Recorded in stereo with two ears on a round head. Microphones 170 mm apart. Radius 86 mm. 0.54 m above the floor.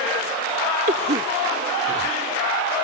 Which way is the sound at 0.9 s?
40° right (ahead or behind).